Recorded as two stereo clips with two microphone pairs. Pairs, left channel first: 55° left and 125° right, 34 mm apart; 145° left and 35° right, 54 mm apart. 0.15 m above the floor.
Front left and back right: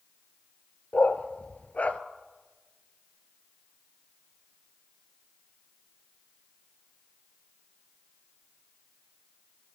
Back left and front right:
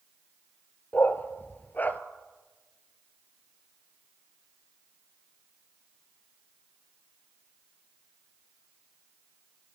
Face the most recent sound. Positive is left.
turn(degrees=90)